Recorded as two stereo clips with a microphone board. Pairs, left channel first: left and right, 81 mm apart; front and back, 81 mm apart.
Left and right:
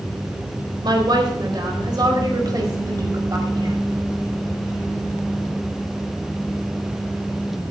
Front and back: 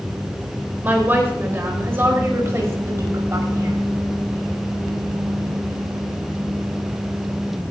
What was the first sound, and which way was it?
A woman speaking, 115° right.